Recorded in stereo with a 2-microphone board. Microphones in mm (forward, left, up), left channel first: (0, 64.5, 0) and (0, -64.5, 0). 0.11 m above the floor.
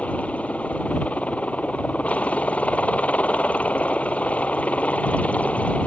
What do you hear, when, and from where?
0.0 s a helicopter: 10° left (ahead or behind)